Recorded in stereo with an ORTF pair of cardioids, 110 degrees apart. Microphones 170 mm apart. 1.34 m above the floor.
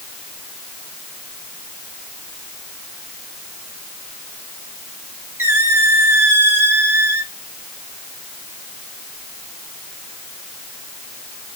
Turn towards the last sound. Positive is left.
turn(degrees=-15)